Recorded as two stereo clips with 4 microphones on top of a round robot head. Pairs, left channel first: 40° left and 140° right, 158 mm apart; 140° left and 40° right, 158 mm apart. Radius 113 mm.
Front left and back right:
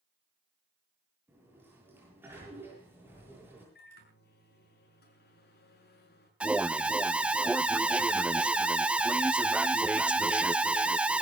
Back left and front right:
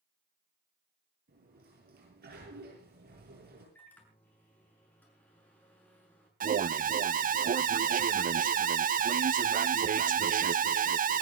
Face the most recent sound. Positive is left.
turn(degrees=-60)